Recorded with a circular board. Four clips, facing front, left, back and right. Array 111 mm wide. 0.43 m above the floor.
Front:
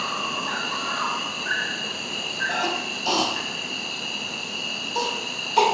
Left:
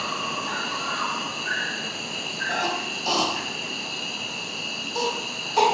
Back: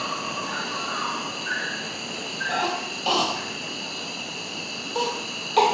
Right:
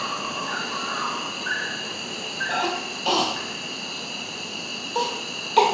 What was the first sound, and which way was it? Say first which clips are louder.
An insect: even, front 1 dB; 35° left.